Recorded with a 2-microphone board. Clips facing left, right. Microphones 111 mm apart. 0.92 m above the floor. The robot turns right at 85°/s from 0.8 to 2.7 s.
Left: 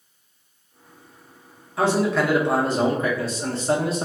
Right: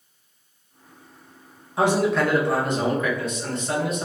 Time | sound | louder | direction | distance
1.8 | a man speaking | even | 30° right | 0.6 m